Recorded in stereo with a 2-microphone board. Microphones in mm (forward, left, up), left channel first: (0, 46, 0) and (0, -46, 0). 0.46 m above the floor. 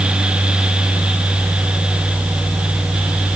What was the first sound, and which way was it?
Only background noise.